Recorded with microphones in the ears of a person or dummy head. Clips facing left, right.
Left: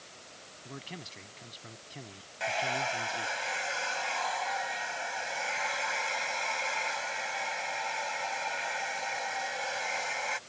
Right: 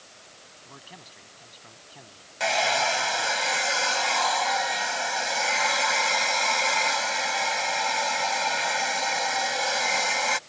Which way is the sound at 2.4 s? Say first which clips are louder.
Right 7 dB; 70° right (ahead or behind).